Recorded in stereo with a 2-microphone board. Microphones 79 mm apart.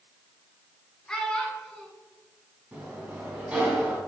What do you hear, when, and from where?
1.1 s a child speaking: 10° left (ahead or behind), 1.0 m
2.7 s a sliding door: 20° right (ahead or behind), 1.3 m